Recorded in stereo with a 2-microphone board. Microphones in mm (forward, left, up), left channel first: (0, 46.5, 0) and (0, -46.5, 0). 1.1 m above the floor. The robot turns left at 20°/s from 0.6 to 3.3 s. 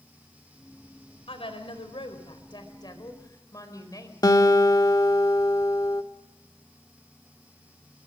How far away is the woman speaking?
About 4 m.